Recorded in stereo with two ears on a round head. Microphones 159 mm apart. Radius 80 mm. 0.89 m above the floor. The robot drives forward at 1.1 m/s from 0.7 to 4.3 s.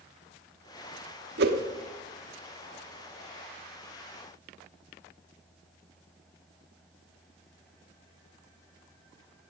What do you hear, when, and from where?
1.4 s a whoosh: 65° right (ahead or behind), 1.0 m; by 1.6 s 55° right (ahead or behind), 1.1 m